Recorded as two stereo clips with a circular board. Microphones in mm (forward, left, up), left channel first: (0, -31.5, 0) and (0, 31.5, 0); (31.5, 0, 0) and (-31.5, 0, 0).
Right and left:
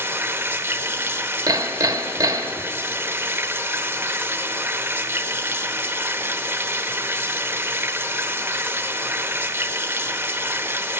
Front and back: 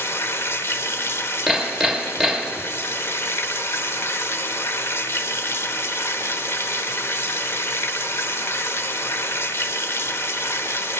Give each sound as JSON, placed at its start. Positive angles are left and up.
{"t": 0.0, "sound": "running water", "azimuth_deg": 45, "distance_m": 0.7}
{"t": 1.5, "sound": "hammering", "azimuth_deg": 95, "distance_m": 0.9}